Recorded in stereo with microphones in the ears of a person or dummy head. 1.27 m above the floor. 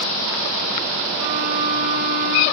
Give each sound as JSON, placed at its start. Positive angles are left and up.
{"t": 1.2, "sound": "a violin", "side_deg": -60, "distance_m": 1.2}